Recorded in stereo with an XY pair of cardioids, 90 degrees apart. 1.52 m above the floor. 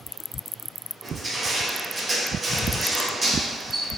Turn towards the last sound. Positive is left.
turn(degrees=-35)